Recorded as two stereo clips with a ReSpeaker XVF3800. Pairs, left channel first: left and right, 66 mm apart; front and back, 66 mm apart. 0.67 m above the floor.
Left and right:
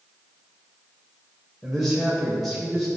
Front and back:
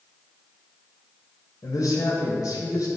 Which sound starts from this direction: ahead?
A man speaking, at 1.6 s.